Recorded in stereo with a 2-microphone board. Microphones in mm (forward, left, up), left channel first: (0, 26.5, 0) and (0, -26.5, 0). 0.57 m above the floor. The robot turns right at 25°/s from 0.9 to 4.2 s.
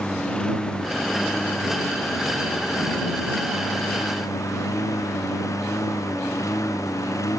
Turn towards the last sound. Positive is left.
turn(degrees=100)